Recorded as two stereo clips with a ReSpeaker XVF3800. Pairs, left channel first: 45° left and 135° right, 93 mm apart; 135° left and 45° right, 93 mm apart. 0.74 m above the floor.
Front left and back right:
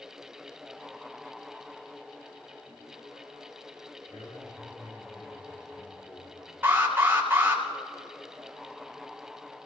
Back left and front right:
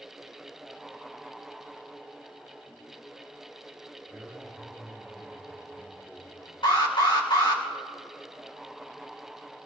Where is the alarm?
160° left, 3 m.